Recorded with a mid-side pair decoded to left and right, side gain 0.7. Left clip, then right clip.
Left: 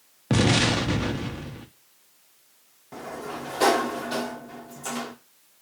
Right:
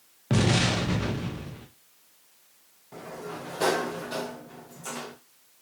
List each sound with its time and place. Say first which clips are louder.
0.3 s an explosion: left 3 dB; 15° left, 0.6 m
2.9 s a sliding door: left 3 dB; 20° left, 0.7 m